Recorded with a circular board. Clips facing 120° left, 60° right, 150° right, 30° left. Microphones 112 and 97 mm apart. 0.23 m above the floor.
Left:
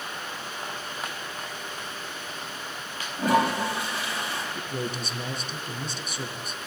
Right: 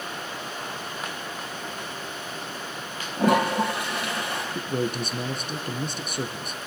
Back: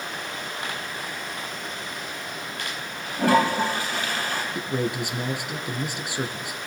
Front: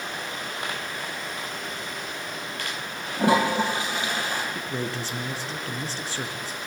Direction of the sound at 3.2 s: 40° right.